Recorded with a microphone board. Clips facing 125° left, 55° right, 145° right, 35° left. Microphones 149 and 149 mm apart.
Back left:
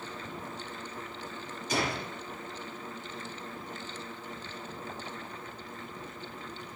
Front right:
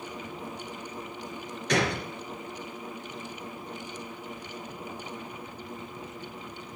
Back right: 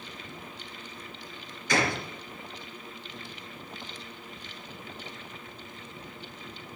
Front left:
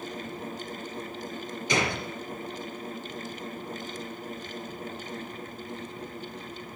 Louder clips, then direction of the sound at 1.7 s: Front right 5 dB, back right 1 dB; 35° right.